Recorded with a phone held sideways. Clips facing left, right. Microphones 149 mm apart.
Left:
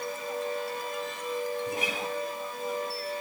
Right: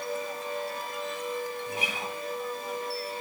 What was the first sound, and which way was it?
A guitar, 40° left (ahead or behind).